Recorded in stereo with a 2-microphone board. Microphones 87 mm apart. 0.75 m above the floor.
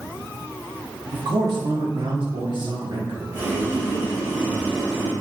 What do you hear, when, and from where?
1.1 s a man speaking: 50° right (ahead or behind), 1.1 m; by 3.2 s 70° right (ahead or behind), 1.9 m
3.3 s boiling: 25° right (ahead or behind), 3 m